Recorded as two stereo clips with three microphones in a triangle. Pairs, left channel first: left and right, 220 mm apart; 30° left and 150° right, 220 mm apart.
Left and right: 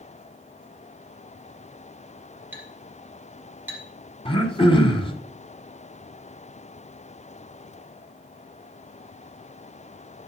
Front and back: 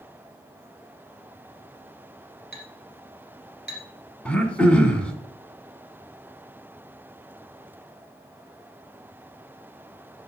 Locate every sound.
2.5 s a clink: 10° right, 2.5 m
4.2 s throat clearing: 110° left, 1.2 m